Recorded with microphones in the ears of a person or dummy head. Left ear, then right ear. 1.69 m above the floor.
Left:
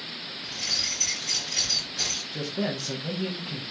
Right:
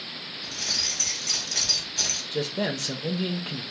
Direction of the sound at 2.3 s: 20° right (ahead or behind).